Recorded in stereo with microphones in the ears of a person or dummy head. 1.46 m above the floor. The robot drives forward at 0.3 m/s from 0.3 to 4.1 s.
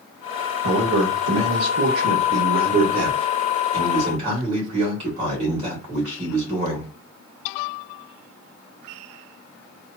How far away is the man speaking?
About 0.8 m.